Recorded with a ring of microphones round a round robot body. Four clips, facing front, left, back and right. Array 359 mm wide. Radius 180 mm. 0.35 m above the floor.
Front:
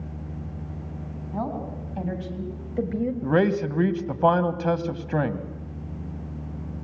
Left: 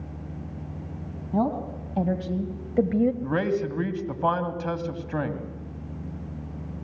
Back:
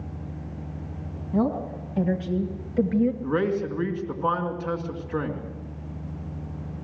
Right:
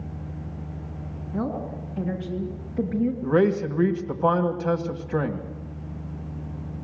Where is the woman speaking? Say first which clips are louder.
Left 3 dB, back 6 dB; 115° left, 3 m; by 3.1 s 95° left, 1.8 m.